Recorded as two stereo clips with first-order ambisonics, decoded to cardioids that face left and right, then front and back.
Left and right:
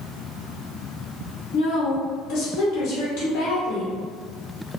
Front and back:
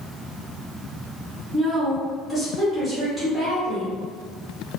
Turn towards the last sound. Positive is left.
turn(degrees=95)